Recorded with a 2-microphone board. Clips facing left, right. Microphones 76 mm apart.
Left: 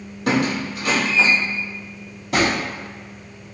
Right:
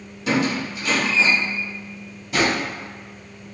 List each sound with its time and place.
0.3 s a squeak: 55° left (ahead or behind), 1.0 m
2.3 s a drawer: 70° left (ahead or behind), 1.5 m